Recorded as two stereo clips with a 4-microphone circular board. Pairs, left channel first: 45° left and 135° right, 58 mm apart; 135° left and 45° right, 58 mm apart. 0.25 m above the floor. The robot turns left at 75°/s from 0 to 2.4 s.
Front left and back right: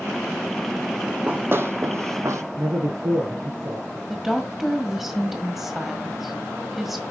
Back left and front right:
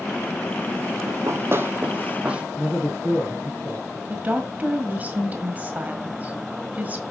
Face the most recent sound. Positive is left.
turn(degrees=-50)